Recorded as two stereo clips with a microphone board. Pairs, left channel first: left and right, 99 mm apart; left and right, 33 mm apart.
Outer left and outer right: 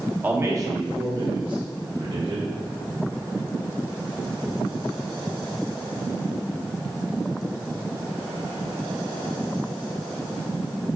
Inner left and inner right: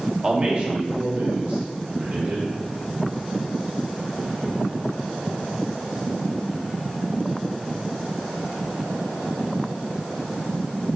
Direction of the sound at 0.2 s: 20° right (ahead or behind).